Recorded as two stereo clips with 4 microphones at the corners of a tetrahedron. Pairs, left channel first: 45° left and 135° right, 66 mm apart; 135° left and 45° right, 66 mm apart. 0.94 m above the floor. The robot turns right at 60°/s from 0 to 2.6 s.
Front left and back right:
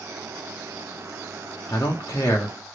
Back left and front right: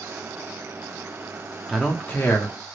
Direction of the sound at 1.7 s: 40° left.